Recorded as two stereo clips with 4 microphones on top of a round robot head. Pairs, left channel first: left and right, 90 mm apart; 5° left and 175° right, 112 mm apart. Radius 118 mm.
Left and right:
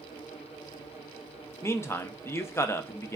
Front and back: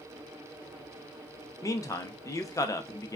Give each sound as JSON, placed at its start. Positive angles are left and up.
{"t": 1.6, "sound": "a man speaking", "azimuth_deg": 45, "distance_m": 0.6}